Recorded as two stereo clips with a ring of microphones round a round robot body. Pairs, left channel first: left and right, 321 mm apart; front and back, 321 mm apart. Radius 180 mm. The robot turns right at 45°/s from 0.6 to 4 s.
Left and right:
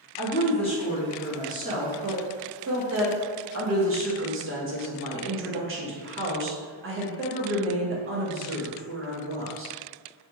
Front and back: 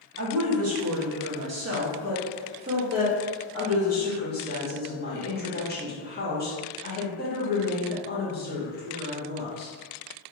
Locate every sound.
0.2 s a woman speaking: 155° left, 0.9 m; by 9.7 s 50° right, 0.9 m